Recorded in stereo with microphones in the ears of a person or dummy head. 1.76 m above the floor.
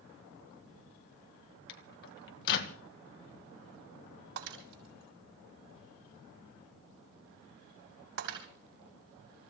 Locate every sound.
1.7 s a microwave: 60° left (ahead or behind), 1.4 m
4.4 s breaking glass: 70° right (ahead or behind), 6.5 m